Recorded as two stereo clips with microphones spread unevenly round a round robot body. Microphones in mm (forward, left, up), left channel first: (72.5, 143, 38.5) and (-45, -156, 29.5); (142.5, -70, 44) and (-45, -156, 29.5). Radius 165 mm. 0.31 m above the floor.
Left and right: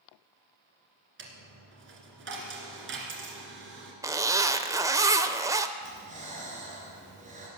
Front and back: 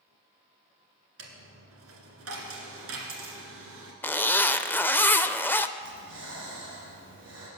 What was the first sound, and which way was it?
A dropped coin, 165° right.